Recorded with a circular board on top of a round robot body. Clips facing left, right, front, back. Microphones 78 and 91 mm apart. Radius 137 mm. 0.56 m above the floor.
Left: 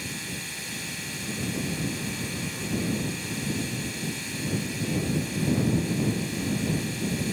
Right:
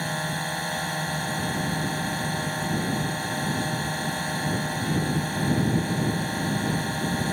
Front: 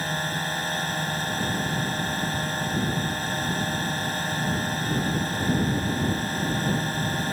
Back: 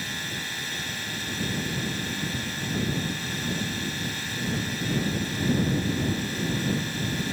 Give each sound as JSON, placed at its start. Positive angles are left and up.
{"t": 0.0, "sound": "a drone", "azimuth_deg": -50}